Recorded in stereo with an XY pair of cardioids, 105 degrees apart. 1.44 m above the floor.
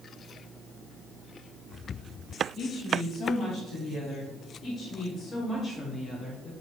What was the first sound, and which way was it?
A woman speaking, 50° left.